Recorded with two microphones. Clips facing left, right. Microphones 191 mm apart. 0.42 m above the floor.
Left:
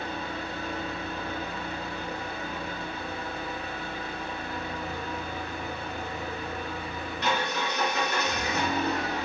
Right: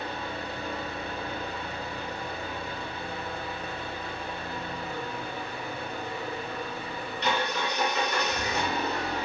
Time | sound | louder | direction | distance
0.0 | an engine running | left 1 dB | 65° left (ahead or behind) | 1.6 m